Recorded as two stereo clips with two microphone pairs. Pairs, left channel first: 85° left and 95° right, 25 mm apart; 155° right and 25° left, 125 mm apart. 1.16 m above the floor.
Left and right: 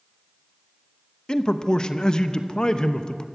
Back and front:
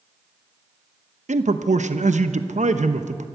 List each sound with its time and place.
1.3 s a man speaking: 30° left, 0.9 m